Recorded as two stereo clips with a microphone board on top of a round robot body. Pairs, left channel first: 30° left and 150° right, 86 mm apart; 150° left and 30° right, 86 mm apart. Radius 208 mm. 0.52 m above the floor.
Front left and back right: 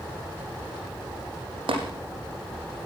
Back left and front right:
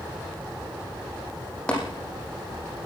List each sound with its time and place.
1.7 s tapping: 130° right, 6.5 m